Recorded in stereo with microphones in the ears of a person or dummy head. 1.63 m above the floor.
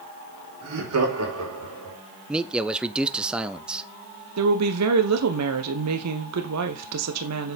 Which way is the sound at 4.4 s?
85° right.